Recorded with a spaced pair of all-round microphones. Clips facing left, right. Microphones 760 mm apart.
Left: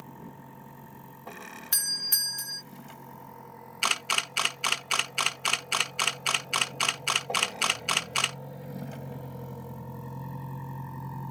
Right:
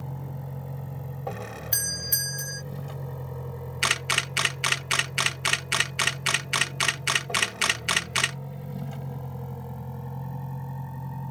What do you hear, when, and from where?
0.0 s a vehicle: 75° right (ahead or behind); by 11.3 s 20° right (ahead or behind)
1.7 s a doorbell: 40° left (ahead or behind)
3.8 s a camera shutter: 50° right (ahead or behind)